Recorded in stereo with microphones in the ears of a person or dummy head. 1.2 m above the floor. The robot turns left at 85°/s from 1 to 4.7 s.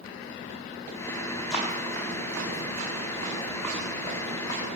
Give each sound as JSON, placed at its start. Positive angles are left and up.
{"t": 1.5, "sound": "running footsteps", "side_deg": 0, "distance_m": 6.0}